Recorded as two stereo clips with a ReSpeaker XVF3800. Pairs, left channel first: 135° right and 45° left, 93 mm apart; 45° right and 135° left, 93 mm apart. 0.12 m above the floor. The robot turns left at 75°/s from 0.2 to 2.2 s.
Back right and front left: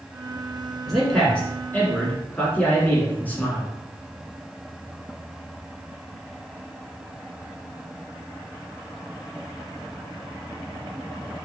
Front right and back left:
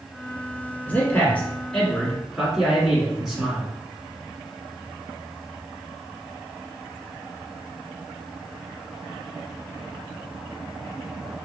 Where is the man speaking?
45° right, 1.2 m; by 3.7 s 145° right, 1.2 m.